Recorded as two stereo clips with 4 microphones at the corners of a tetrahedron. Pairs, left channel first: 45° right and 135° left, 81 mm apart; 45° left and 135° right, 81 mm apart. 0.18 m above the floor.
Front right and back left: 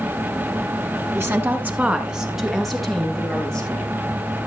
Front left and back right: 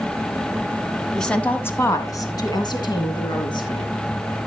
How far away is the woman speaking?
About 1.6 m.